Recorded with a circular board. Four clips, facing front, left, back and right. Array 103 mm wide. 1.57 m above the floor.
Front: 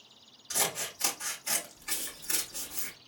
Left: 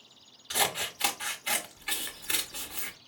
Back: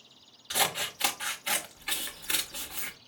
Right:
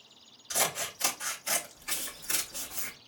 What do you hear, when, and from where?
0.5 s scissors: 145° left, 1.1 m